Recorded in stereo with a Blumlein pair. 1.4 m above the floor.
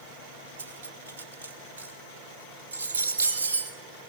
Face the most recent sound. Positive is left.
turn(degrees=-65)